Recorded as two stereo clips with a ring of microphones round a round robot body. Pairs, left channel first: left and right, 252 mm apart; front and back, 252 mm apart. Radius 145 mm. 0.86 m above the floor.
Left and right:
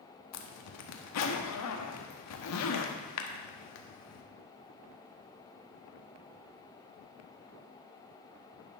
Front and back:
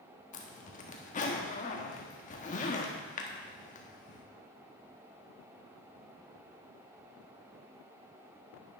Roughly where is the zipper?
Ahead left.